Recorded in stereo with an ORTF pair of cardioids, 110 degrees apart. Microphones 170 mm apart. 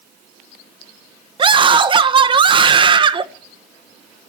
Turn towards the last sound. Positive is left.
turn(degrees=-30)